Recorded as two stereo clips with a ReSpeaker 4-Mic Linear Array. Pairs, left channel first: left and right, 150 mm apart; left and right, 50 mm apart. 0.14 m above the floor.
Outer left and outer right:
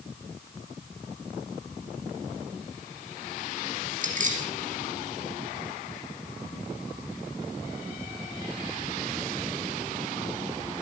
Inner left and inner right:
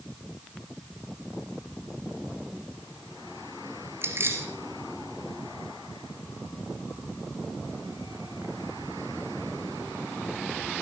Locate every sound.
4.0 s keys jangling: 60° right (ahead or behind), 1.9 m